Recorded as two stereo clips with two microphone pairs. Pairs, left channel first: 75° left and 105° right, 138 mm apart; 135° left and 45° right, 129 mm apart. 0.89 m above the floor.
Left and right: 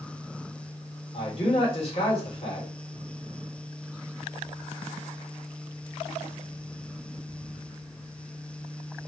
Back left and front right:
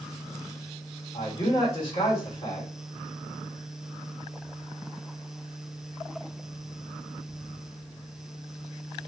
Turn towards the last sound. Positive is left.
turn(degrees=105)